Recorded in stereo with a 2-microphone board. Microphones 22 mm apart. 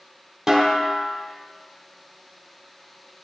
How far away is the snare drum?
About 0.9 m.